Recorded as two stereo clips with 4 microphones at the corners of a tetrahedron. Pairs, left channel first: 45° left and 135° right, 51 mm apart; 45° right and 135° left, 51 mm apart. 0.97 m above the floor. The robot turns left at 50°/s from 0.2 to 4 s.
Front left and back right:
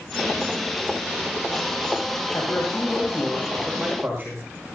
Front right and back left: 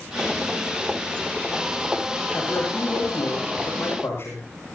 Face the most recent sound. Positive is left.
turn(degrees=-75)